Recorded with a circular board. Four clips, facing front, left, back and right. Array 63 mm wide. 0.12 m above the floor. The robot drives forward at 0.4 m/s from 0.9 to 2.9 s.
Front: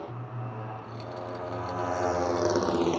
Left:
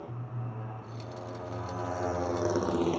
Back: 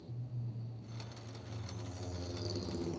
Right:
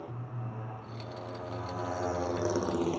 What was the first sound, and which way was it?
A motorcycle, straight ahead.